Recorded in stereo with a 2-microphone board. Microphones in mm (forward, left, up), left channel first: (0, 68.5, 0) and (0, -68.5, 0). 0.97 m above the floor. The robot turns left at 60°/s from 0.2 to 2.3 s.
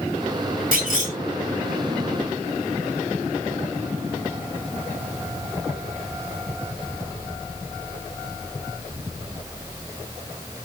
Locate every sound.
0.7 s a clunk: 80° right, 3 m; by 1.1 s 55° right (ahead or behind), 3 m